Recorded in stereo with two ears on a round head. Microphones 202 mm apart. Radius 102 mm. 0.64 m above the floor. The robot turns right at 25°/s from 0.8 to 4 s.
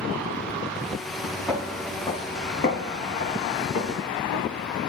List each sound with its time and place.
1.5 s footsteps: 5° right (ahead or behind), 1.4 m; by 4.8 s 80° left, 3.5 m